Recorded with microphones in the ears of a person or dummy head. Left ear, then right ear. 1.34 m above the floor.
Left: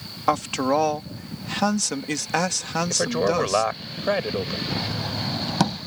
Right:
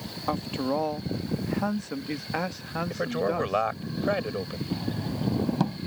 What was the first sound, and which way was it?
A man speaking, 50° left (ahead or behind).